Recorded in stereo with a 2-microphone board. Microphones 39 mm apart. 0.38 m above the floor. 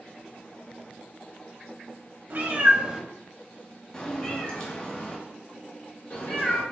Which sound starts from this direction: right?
A cat meowing, at 2.3 s.